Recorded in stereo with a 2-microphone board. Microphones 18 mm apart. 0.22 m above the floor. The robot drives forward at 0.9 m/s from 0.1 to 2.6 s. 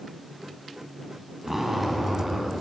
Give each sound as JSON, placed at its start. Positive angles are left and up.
{"t": 1.4, "sound": "a zipper", "side_deg": -15, "distance_m": 1.8}